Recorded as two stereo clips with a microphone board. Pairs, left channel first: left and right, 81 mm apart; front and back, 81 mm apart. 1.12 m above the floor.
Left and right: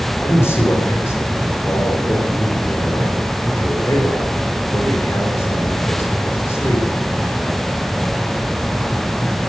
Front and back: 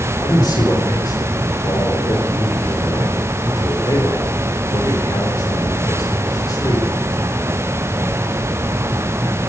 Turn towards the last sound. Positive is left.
turn(degrees=30)